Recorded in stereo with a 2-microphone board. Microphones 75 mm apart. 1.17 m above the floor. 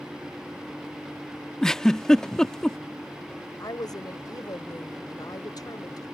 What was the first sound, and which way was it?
A giggle, 5° left (ahead or behind).